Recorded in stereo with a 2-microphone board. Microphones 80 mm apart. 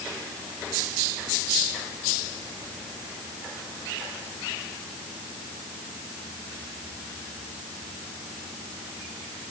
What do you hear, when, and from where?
Only background noise.